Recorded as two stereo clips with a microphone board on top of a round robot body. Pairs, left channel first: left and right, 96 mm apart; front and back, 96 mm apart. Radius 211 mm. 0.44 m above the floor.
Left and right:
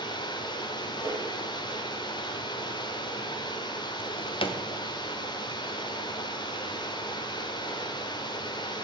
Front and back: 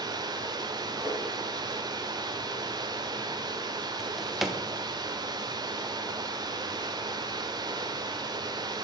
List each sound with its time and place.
0.0 s running water: 135° left, 0.8 m
1.0 s a whoosh: 100° left, 5.5 m
4.0 s a drawer: 90° left, 0.9 m